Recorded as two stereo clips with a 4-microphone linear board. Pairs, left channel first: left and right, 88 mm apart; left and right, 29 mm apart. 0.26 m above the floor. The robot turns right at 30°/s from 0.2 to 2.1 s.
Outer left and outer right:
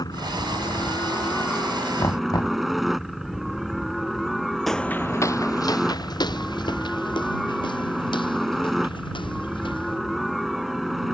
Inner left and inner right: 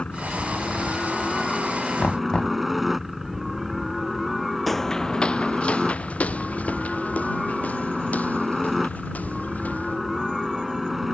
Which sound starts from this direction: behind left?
A helicopter, at 0.0 s.